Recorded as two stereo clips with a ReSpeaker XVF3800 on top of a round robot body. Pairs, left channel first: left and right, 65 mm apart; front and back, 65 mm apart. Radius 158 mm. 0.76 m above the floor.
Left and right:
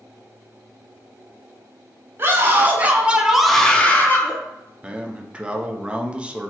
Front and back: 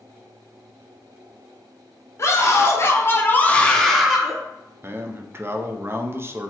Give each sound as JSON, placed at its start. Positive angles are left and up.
{"t": 2.2, "sound": "a scream", "azimuth_deg": -40, "distance_m": 1.1}
{"t": 4.8, "sound": "a man speaking", "azimuth_deg": -155, "distance_m": 0.6}